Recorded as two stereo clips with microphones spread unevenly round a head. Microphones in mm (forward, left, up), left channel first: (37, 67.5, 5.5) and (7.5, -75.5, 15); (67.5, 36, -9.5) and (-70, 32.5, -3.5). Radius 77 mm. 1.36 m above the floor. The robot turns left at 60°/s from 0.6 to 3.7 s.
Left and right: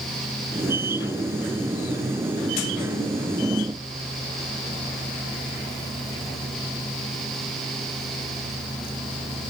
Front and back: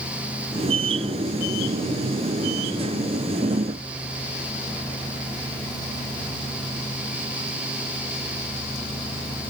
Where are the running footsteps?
I don't hear running footsteps.